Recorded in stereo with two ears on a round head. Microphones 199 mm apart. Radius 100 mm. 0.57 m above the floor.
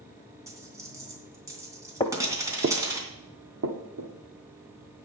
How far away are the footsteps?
About 0.9 m.